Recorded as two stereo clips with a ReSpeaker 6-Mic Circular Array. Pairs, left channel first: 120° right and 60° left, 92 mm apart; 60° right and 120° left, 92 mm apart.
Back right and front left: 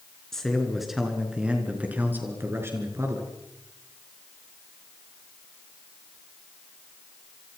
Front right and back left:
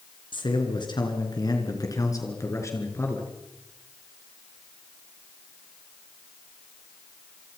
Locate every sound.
0.3 s a man speaking: 35° right, 4.5 m; by 3.3 s 5° left, 5 m